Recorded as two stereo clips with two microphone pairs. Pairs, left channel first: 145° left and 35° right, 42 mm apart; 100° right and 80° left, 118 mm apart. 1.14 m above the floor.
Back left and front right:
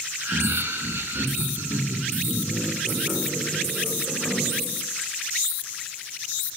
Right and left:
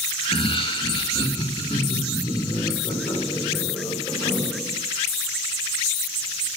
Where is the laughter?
60° right, 1.0 m; by 4.8 s 45° right, 5 m.